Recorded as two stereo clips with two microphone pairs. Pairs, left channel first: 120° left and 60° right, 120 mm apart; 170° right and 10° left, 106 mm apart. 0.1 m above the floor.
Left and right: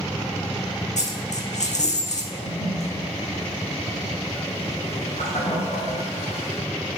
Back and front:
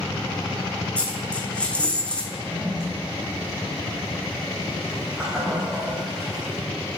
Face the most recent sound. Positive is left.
turn(degrees=95)